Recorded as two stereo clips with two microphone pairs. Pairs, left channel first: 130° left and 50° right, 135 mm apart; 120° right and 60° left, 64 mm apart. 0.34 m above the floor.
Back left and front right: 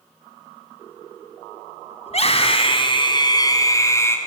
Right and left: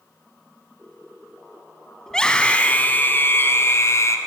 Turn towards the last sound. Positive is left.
turn(degrees=-160)